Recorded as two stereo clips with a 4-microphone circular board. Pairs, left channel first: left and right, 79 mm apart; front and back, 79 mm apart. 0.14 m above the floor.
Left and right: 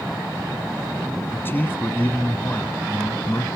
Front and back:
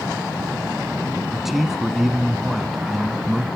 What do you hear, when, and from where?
1.3 s a man speaking: 95° left, 1.3 m